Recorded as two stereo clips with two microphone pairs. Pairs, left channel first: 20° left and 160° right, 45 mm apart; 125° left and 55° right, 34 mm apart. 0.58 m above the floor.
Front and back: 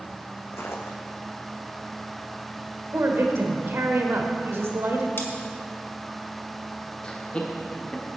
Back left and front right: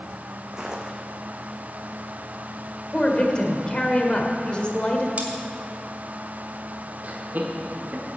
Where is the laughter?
40° right, 1.1 m.